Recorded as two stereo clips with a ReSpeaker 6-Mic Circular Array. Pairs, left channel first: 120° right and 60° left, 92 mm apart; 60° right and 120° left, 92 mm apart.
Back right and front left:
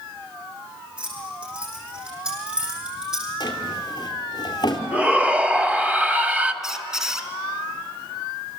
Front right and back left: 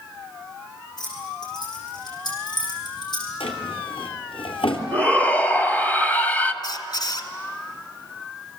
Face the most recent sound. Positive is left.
turn(degrees=-25)